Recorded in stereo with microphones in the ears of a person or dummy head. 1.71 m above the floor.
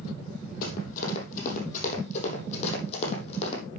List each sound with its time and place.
0.6 s running footsteps: 60° left (ahead or behind), 3.5 m; by 3.6 s 45° left (ahead or behind), 4.5 m